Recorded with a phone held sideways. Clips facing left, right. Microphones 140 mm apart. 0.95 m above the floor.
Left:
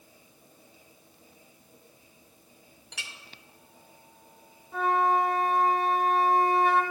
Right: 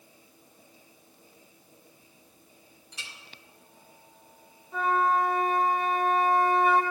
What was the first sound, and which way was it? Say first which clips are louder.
A clink: left 2 dB; 75° left (ahead or behind).